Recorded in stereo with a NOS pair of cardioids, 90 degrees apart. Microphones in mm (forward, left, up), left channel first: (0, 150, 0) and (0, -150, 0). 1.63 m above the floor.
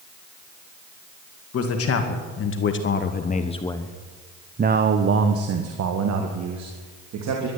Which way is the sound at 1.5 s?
60° left.